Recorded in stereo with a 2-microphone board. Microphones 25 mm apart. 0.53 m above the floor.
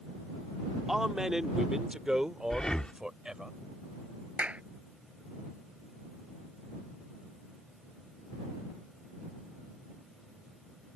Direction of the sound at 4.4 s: 80° right.